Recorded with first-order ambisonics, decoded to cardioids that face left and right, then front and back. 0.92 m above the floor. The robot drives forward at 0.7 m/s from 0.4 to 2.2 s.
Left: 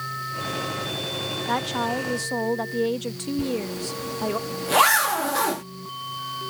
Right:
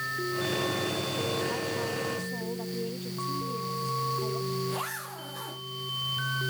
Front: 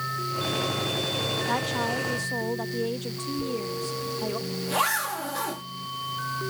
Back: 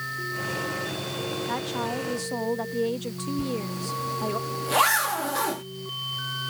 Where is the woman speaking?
75° left; by 4.4 s 105° left.